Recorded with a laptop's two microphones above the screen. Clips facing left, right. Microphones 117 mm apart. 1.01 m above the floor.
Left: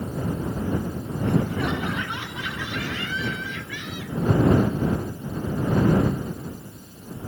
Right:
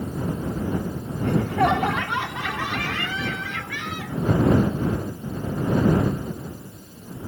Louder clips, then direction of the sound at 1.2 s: Right 4 dB; 75° right (ahead or behind).